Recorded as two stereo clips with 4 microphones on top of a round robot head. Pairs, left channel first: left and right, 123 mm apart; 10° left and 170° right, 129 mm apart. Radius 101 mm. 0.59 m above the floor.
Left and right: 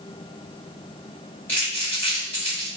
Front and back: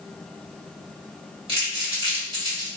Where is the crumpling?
165° left, 1.4 m.